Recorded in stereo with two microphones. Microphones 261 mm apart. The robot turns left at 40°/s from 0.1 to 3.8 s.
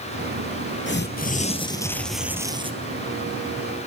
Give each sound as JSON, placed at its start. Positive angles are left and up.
{"t": 0.9, "sound": "tearing paper", "azimuth_deg": 50, "distance_m": 1.1}